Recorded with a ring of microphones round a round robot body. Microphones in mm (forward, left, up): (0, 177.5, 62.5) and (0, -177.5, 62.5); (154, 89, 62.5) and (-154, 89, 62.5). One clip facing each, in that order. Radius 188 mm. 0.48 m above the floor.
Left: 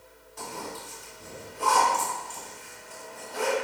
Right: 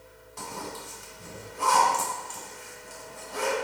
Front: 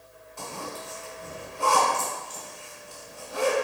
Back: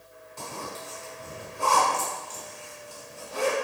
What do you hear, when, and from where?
0.4 s a zipper: 115° right, 1.4 m